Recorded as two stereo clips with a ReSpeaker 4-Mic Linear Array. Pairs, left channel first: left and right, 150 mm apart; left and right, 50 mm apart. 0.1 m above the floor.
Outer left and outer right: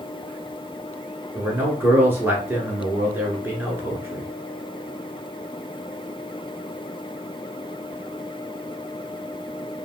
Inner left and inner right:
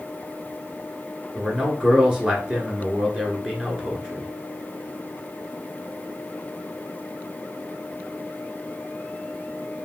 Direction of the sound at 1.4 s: 15° right (ahead or behind).